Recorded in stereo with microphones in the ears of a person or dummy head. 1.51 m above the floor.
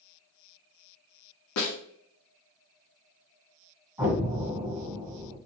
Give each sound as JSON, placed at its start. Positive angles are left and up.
{"t": 1.6, "sound": "a snare drum", "side_deg": 65, "distance_m": 0.8}
{"t": 4.0, "sound": "an explosion", "side_deg": -10, "distance_m": 2.0}